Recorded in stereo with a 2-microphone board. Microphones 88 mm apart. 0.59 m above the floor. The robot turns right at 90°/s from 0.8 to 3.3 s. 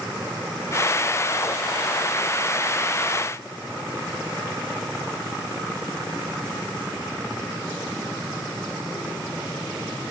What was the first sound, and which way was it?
Only background noise.